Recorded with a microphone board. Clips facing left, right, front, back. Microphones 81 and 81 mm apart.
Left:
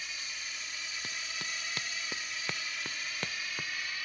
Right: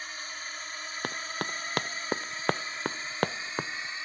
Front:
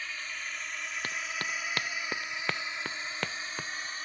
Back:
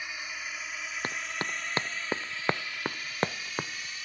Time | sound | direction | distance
0.0 | a drone | 110° right | ?
1.0 | running footsteps | 120° right | ?